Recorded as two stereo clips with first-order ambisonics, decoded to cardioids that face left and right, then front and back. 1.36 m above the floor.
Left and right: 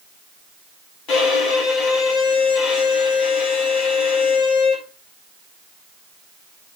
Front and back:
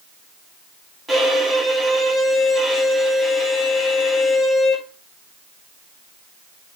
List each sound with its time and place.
1.1 s a violin: 95° left, 1.5 m